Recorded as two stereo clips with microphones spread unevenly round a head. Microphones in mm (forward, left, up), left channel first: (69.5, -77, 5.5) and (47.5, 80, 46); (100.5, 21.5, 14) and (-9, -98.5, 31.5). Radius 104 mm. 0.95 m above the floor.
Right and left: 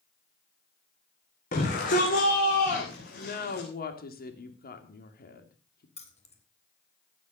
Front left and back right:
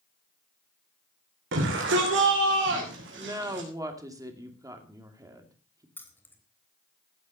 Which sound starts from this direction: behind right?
A shout, at 1.5 s.